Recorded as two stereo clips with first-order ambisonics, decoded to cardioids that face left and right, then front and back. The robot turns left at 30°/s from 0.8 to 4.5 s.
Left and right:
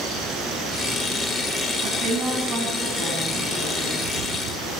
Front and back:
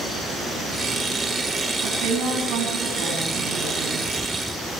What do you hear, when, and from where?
1.8 s a woman speaking: 140° right, 8.5 m; by 4.0 s 155° left, 8.5 m